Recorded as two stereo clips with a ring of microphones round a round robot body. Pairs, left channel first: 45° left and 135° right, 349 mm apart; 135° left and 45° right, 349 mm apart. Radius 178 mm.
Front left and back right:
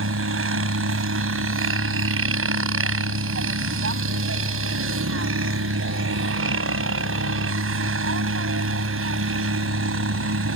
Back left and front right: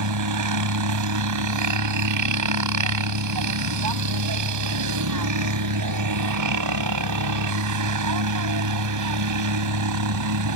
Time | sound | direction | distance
0.0 | a helicopter | 80° right | ?